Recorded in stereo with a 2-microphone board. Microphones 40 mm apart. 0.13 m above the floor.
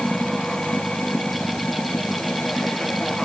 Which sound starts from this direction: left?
Running water, at 0.0 s.